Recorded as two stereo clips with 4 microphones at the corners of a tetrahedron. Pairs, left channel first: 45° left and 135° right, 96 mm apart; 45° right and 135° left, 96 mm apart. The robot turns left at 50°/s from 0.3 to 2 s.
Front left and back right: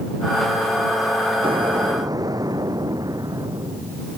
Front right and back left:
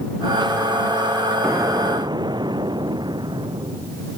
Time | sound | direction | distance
1.4 | an explosion | 155° right | ?